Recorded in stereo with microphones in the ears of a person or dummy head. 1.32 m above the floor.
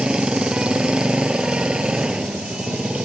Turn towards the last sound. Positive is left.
turn(degrees=-5)  # may be behind; listen again after turning